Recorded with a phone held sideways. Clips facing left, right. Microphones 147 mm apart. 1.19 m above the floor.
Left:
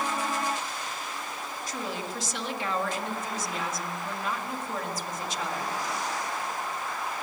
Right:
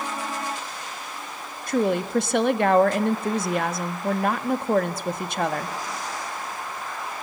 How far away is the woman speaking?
About 1.5 m.